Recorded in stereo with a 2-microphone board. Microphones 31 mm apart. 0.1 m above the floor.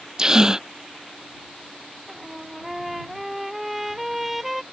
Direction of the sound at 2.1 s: 5° right (ahead or behind).